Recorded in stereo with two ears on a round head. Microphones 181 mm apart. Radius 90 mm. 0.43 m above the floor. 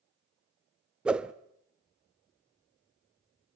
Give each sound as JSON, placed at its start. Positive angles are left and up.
{"t": 1.1, "sound": "a whoosh", "side_deg": -5, "distance_m": 0.5}